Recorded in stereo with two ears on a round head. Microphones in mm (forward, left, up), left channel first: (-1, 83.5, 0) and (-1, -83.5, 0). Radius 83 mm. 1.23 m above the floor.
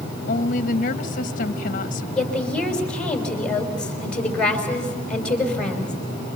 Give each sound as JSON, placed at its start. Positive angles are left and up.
{"t": 0.3, "sound": "a woman speaking", "side_deg": 45, "distance_m": 1.5}
{"t": 2.1, "sound": "a woman speaking", "side_deg": 5, "distance_m": 5.0}